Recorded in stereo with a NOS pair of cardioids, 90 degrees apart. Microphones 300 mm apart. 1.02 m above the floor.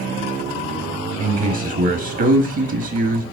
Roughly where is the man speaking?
Ahead right.